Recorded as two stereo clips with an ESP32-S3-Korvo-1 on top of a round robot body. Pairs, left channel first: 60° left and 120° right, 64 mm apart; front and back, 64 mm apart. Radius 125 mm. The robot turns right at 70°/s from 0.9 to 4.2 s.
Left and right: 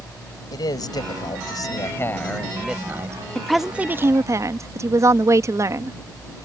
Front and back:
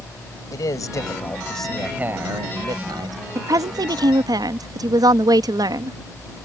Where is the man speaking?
35° left; by 3.2 s 165° right.